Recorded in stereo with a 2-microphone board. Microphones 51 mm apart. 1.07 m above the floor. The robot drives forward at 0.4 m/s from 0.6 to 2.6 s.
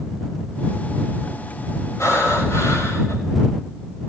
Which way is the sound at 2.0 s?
70° left (ahead or behind).